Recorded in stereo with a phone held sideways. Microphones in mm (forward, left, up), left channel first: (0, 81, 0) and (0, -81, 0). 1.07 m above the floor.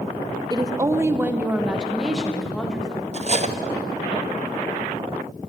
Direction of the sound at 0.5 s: 25° right (ahead or behind).